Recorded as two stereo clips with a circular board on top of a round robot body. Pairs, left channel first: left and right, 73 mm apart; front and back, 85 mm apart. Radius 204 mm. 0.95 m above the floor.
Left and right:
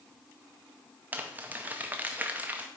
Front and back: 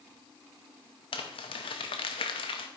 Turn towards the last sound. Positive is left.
turn(degrees=-20)